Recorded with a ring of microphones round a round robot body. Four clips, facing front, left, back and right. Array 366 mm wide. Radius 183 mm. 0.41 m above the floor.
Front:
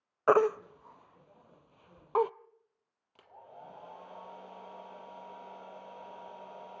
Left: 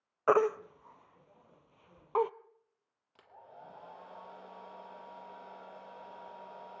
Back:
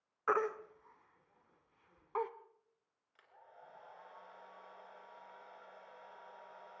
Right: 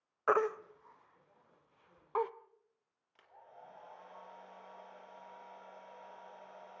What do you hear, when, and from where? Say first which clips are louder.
0.3 s a baby crying: left 4 dB, front 10 dB; 30° left, 0.6 m
3.1 s a hair dryer: left 4 dB, front 9 dB; 35° left, 2.5 m